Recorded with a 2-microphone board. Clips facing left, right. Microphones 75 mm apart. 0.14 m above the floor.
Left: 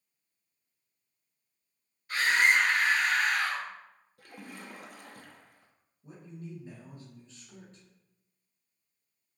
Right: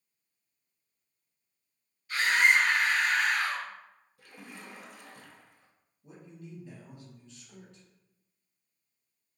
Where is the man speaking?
35° left (ahead or behind), 1.6 m.